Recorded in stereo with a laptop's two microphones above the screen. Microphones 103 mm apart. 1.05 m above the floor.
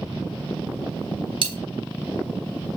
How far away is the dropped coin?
About 0.9 m.